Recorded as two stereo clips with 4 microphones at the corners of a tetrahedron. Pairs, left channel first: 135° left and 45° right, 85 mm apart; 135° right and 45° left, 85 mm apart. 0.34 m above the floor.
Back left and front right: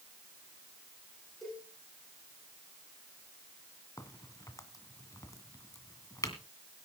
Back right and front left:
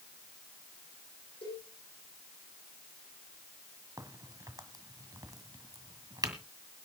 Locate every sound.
1.4 s a cowbell: 135° right, 10 m
4.0 s a crack: 85° left, 1.7 m